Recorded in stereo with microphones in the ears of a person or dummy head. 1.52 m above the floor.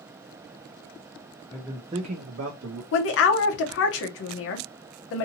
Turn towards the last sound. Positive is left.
turn(degrees=70)  # may be behind; listen again after turning